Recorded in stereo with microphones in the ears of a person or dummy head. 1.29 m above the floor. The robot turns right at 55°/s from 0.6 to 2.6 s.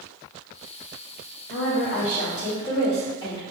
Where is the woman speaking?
100° left, 1.8 m; by 3.4 s 160° left, 1.8 m.